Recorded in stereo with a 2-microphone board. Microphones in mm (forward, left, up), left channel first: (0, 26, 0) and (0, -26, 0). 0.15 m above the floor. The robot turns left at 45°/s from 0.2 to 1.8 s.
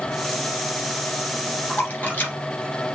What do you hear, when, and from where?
1.7 s a splash: 30° left (ahead or behind), 2.5 m; by 2.3 s 35° left (ahead or behind), 2.5 m